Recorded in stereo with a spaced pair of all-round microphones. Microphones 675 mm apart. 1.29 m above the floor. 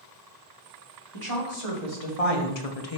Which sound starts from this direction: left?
A woman speaking, at 1.1 s.